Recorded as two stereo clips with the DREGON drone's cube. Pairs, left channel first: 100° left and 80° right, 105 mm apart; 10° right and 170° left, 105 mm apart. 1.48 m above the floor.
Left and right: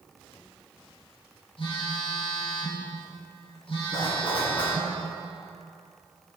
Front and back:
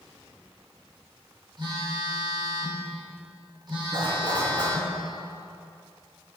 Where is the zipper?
140° left, 3 m.